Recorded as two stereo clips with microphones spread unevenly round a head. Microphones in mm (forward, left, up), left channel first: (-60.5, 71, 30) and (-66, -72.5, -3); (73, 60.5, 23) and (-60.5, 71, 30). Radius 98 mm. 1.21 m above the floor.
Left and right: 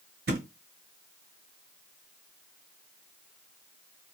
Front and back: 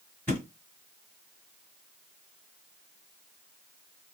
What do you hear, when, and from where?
0.3 s a thud: 85° right, 1.4 m